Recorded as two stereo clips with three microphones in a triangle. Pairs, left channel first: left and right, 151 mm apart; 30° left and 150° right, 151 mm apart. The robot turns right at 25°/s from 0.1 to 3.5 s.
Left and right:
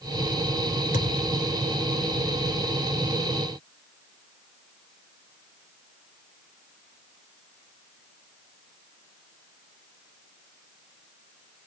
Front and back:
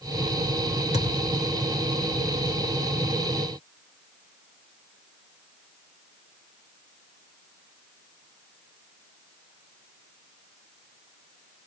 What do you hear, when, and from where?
0.9 s a thud: 65° left, 3.5 m; by 1.5 s 80° left, 3.5 m